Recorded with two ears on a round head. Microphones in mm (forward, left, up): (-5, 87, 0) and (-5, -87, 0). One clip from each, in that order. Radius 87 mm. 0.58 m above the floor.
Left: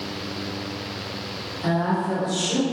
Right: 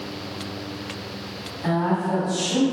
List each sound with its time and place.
1.6 s a woman speaking: 45° left (ahead or behind), 1.7 m; by 2.6 s 20° left (ahead or behind), 1.4 m